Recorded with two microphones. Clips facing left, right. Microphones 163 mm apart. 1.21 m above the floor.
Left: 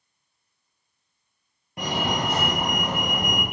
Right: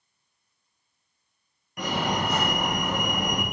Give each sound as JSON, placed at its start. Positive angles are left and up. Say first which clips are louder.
{"t": 1.8, "sound": "a fire alarm", "louder": "left 1 dB", "side_deg": 25, "distance_m": 1.9}